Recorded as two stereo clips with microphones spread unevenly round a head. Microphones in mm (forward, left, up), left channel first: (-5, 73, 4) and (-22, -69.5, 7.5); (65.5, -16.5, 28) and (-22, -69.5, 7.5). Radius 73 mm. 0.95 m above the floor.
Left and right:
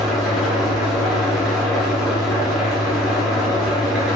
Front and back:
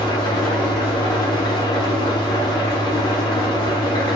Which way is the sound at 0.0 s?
10° right.